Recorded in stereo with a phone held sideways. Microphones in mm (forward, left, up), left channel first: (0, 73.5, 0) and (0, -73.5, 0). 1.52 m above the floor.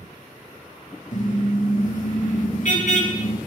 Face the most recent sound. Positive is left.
turn(degrees=60)  # may be behind; listen again after turning